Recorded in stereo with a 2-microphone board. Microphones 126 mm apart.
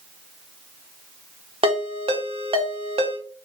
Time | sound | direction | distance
1.6 | a ringtone | 45° right (ahead or behind) | 0.6 m